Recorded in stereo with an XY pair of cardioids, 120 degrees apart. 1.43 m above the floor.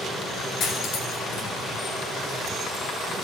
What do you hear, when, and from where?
0.6 s cutlery clinking: 70° left, 2.5 m